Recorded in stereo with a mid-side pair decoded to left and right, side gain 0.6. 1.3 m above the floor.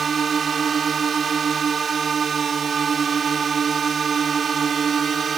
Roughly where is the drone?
Ahead right.